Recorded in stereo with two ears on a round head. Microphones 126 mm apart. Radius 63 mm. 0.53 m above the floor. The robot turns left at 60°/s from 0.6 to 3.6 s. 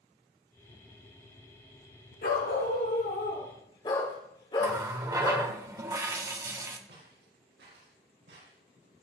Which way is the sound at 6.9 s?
80° right.